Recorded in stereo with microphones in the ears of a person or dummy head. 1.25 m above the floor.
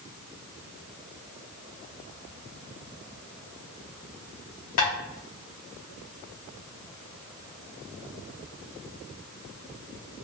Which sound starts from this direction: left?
Tapping, at 4.8 s.